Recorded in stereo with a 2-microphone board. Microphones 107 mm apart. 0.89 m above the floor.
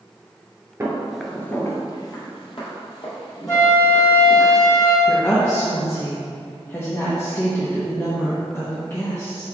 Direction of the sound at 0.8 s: 25° right (ahead or behind).